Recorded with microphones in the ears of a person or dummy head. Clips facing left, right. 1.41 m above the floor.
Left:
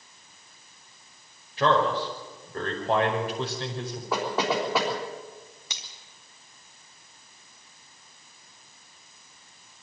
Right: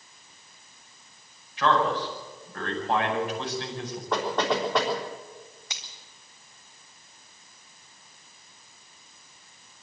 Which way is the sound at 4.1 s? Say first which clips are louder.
Right 1 dB; 10° left (ahead or behind).